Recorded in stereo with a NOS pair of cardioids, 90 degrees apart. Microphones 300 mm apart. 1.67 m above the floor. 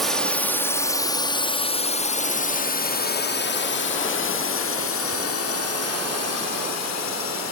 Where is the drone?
Straight ahead; by 7.5 s 60° left.